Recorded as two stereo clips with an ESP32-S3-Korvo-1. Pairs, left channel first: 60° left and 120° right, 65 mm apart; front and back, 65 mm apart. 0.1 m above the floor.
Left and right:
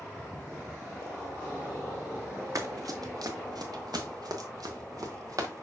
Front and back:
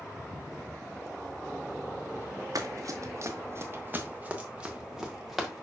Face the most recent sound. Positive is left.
turn(degrees=-90)